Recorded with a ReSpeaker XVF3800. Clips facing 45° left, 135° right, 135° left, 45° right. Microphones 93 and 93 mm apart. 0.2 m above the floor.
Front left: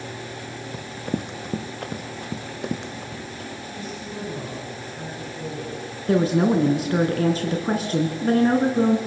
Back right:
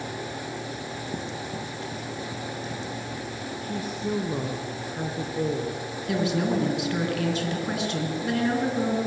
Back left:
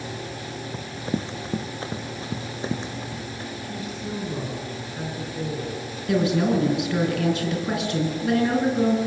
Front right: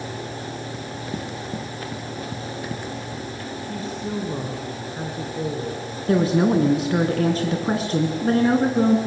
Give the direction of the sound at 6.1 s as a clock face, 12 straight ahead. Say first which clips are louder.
Front left 6 dB, front right 3 dB; 12 o'clock.